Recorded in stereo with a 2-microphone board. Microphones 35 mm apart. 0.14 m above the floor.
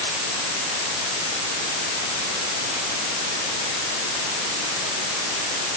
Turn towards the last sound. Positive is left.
No sound to turn to.